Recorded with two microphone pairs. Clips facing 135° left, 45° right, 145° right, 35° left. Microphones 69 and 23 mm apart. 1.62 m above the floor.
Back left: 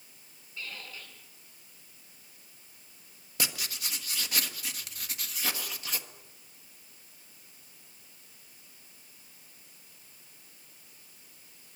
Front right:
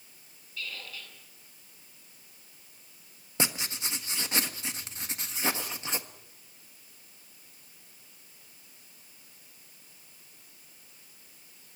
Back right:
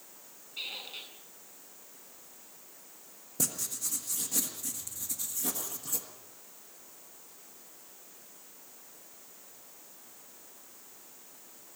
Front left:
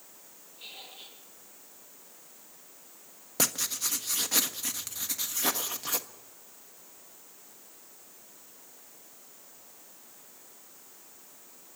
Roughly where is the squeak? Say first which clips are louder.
Front right 1 dB, back right 6 dB; behind.